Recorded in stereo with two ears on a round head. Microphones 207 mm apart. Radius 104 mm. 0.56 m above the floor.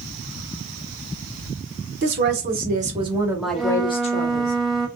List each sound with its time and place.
2.0 s a woman speaking: 50° right (ahead or behind), 1.3 m; by 4.5 s 45° left (ahead or behind), 1.0 m
3.5 s a flute: centre (ahead or behind), 0.7 m